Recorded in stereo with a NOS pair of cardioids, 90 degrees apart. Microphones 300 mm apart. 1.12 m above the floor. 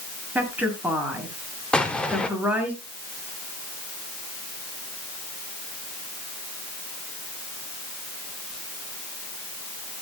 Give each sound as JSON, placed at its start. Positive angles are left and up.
{"t": 0.3, "sound": "a woman speaking", "azimuth_deg": -5, "distance_m": 8.0}
{"t": 1.7, "sound": "an explosion", "azimuth_deg": 5, "distance_m": 2.5}